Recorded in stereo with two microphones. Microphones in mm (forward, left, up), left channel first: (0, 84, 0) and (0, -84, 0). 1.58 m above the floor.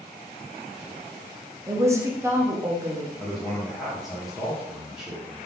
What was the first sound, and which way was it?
A woman speaking, 15° right (ahead or behind).